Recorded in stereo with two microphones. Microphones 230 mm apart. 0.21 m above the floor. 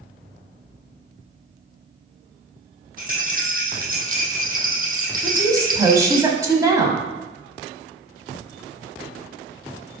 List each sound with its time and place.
3.0 s a rattle: 40° right (ahead or behind), 1.2 m
5.2 s a woman speaking: 15° right (ahead or behind), 1.0 m